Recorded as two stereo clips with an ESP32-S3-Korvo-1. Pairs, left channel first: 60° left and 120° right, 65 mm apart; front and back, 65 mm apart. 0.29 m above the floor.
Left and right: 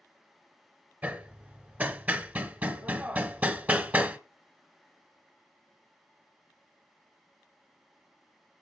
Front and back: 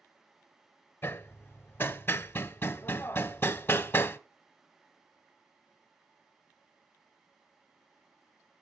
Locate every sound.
1.0 s hammering: 55° right, 0.5 m